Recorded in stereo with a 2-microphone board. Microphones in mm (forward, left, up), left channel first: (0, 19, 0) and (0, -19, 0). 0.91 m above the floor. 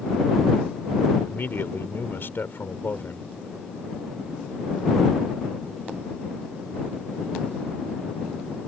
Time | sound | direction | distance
1.3 | a man speaking | 65° left (ahead or behind) | ?